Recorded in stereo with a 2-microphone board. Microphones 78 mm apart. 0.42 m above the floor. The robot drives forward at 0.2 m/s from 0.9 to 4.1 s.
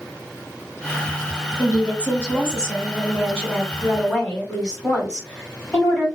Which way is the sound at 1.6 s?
20° left (ahead or behind).